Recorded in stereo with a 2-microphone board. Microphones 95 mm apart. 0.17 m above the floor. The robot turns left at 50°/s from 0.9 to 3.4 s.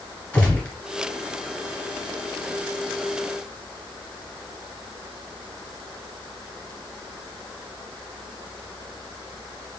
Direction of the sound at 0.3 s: 20° left (ahead or behind).